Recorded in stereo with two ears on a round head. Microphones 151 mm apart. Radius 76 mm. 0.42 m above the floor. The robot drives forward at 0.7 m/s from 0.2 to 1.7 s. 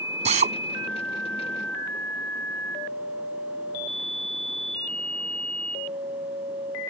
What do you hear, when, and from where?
0.2 s a drill: 40° right (ahead or behind)